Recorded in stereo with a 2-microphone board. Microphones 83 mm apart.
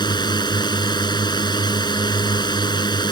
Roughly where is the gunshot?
I don't hear a gunshot.